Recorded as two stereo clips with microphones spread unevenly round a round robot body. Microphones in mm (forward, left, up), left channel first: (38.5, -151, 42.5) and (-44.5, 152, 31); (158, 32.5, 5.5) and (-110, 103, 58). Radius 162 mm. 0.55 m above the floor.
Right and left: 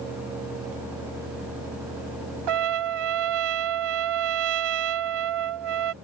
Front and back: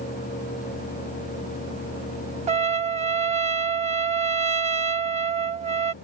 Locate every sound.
2.5 s a trumpet: 100° left